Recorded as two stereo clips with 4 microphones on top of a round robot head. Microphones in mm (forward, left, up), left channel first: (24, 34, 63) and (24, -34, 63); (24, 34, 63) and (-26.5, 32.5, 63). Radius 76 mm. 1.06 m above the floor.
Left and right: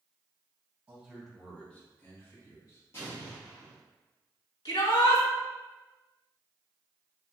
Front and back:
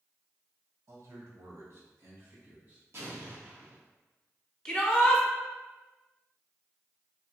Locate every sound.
0.9 s a man speaking: 160° right, 1.6 m; by 2.8 s 125° left, 2 m
2.9 s an explosion: 145° left, 1.5 m
4.7 s a shout: 80° left, 1.8 m